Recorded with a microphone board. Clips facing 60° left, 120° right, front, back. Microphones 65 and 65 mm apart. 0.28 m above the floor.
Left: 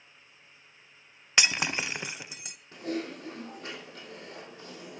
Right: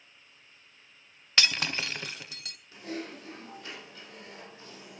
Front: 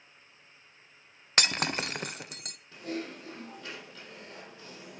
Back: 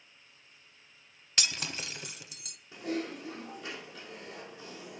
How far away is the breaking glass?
About 0.6 m.